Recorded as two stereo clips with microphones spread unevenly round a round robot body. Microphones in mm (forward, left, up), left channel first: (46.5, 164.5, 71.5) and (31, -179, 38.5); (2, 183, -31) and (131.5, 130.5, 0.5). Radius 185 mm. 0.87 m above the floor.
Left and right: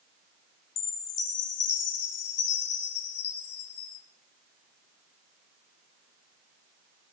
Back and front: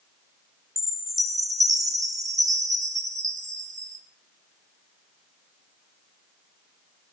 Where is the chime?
50° left, 2.5 m.